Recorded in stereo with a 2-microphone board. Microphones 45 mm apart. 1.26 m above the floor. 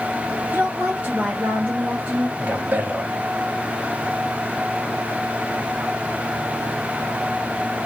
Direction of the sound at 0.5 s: 35° right (ahead or behind).